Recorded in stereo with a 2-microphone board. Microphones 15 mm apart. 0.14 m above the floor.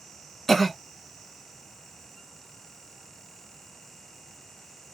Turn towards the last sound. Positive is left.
turn(degrees=20)  # may be behind; listen again after turning